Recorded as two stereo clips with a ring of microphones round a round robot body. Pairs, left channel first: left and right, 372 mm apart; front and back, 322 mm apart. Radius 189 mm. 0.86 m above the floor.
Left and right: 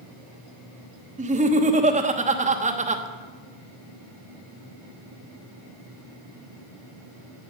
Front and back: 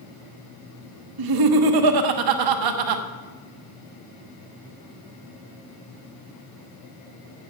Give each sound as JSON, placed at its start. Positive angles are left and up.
{"t": 1.2, "sound": "laughter", "azimuth_deg": -160, "distance_m": 1.1}